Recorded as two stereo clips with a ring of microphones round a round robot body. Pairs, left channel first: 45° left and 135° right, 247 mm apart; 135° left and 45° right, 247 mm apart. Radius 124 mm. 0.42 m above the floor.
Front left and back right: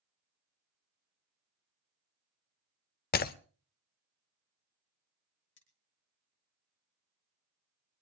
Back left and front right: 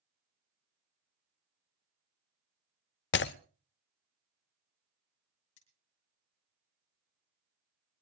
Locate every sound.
3.1 s breaking glass: 95° left, 0.6 m
5.6 s cutlery clinking: 90° left, 3 m